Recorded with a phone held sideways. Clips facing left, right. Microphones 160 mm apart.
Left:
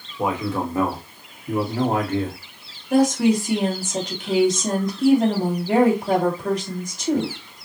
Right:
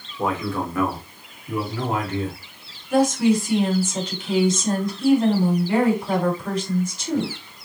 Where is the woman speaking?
60° left (ahead or behind), 3 m.